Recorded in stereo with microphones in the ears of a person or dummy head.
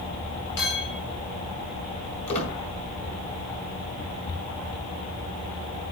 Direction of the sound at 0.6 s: 60° left (ahead or behind).